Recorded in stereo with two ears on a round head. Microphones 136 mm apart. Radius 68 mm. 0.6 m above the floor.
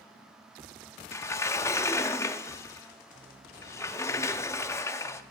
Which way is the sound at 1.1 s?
20° left (ahead or behind).